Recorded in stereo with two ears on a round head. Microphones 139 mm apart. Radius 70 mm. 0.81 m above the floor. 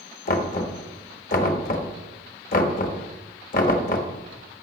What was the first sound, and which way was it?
Knocking, 60° left (ahead or behind).